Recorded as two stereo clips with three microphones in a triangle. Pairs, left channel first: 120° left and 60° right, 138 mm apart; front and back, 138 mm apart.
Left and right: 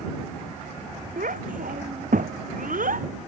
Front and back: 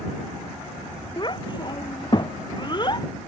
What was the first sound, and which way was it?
A child speaking, 55° right.